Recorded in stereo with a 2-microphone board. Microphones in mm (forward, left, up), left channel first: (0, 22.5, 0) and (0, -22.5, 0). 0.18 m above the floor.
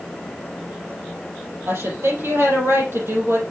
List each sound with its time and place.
1.7 s a woman speaking: 65° right (ahead or behind), 4.5 m